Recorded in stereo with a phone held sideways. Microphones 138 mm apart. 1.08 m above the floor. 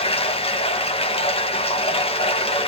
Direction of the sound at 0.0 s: 45° left (ahead or behind).